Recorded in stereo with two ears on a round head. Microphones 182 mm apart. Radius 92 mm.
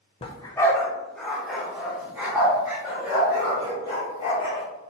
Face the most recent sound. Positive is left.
turn(degrees=-15)  # may be behind; listen again after turning